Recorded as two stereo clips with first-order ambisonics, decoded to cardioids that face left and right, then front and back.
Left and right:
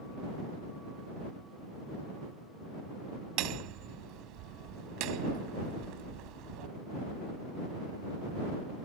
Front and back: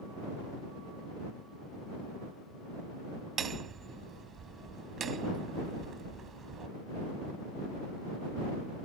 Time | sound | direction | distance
3.4 | hammering | 115° right | ?